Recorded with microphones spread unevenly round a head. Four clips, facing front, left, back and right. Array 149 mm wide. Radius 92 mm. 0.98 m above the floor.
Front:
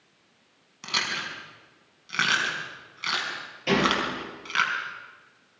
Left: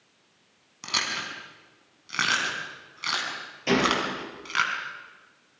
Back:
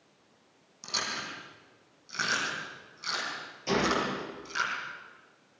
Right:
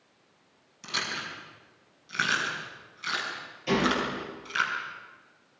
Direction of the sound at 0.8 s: 50° left.